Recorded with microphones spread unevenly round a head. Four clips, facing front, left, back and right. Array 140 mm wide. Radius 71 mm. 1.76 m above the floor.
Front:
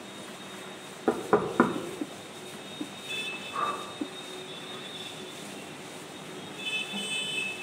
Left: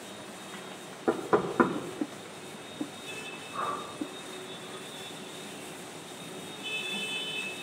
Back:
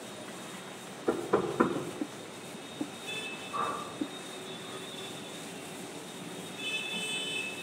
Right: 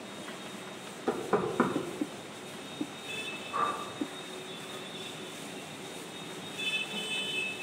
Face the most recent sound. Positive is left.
turn(degrees=-85)